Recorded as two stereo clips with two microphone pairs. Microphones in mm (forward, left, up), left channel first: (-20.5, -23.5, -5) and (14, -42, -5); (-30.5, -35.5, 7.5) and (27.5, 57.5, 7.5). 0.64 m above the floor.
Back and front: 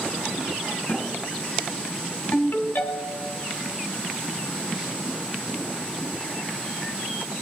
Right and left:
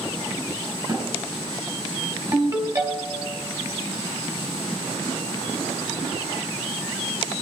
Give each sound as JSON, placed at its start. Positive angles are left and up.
{"t": 0.9, "sound": "a thud", "azimuth_deg": 105, "distance_m": 3.5}
{"t": 2.3, "sound": "a ringtone", "azimuth_deg": 120, "distance_m": 2.0}